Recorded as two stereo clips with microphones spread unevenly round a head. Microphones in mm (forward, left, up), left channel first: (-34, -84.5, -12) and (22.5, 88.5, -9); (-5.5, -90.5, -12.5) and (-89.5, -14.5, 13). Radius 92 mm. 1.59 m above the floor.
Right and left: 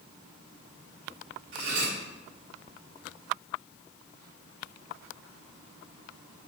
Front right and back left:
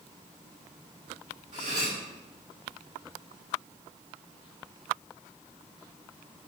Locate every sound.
1.5 s cutlery clinking: 100° left, 4 m